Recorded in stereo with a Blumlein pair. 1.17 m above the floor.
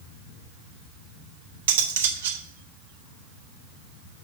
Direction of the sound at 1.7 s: 60° right.